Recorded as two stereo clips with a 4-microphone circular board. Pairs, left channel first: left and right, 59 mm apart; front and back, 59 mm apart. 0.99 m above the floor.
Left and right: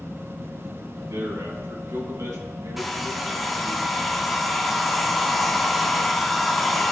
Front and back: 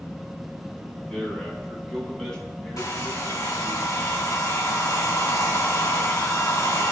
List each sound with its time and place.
1.0 s a man speaking: 75° right, 6 m
2.8 s a hair dryer: 5° right, 2 m